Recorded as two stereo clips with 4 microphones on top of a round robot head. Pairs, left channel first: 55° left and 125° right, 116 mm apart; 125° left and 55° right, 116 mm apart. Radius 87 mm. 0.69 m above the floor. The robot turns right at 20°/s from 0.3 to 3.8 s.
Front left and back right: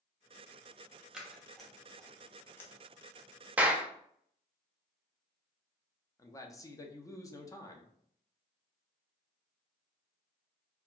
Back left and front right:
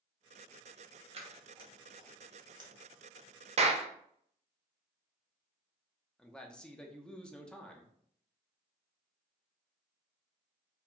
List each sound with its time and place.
1.1 s scissors: 40° right, 0.8 m; by 2.7 s 10° right, 0.8 m
3.6 s a clap: 50° right, 0.5 m; by 3.9 s 45° right, 0.5 m
6.2 s a man speaking: 55° left, 0.5 m